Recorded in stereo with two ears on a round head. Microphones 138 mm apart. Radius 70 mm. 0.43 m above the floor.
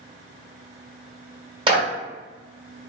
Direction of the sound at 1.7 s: 35° right (ahead or behind).